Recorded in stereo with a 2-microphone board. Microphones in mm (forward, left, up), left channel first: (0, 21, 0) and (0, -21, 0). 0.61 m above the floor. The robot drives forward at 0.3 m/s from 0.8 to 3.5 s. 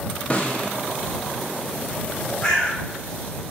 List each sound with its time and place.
0.3 s a snare drum: 30° left (ahead or behind), 0.6 m
2.4 s a bird: 15° left (ahead or behind), 1.1 m